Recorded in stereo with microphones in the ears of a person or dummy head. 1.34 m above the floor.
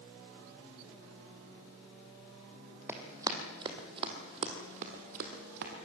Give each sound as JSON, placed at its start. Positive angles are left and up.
{"t": 2.9, "sound": "running footsteps", "side_deg": -15, "distance_m": 3.0}